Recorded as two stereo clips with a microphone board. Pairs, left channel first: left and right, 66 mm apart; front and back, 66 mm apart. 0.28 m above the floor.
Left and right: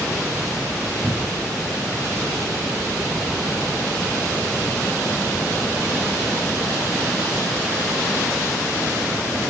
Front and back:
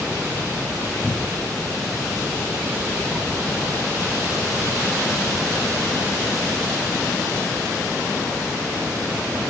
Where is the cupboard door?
120° right.